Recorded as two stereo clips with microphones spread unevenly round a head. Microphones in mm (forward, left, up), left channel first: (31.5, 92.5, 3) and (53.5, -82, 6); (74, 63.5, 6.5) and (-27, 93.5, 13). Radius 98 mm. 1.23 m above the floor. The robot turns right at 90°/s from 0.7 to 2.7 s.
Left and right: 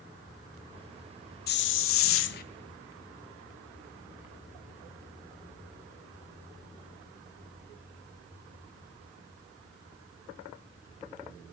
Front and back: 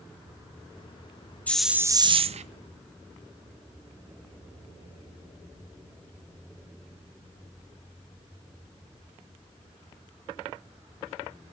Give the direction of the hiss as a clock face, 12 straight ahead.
10 o'clock.